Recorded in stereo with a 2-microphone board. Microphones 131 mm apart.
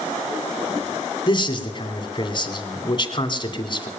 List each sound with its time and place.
1.3 s a man speaking: 40° left (ahead or behind), 1.8 m